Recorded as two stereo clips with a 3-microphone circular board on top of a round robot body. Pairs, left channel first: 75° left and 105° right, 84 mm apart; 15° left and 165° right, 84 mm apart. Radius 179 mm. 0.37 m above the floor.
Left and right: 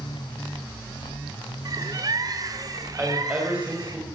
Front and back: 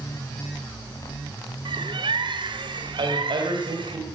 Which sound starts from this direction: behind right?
A bird, at 1.6 s.